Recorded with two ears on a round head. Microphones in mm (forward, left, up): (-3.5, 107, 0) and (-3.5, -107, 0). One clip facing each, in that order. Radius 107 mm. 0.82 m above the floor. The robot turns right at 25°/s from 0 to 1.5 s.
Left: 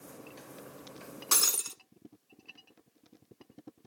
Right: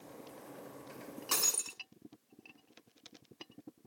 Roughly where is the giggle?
No giggle in this recording.